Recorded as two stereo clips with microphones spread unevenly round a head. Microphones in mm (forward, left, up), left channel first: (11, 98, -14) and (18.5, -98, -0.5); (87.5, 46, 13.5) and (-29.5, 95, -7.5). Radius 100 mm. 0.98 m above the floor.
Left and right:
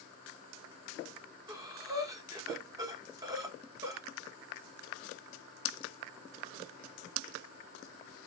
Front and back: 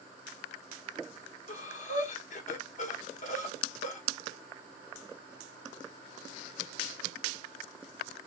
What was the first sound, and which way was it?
Breathing, 15° right.